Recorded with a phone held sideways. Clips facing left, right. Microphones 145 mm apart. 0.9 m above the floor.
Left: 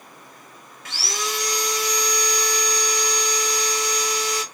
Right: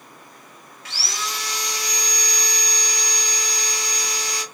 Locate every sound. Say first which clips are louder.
0.8 s sawing: left 3 dB; 45° left (ahead or behind), 2.0 m